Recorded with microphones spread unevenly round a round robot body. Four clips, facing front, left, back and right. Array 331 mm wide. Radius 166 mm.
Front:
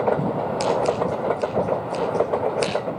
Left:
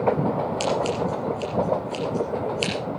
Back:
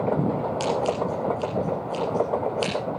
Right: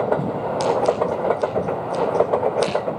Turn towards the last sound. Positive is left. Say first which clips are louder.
# right 8 dB, front 5 dB
turn(degrees=0)